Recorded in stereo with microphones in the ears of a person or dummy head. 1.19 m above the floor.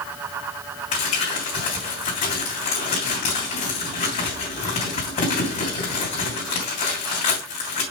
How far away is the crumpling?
About 3 m.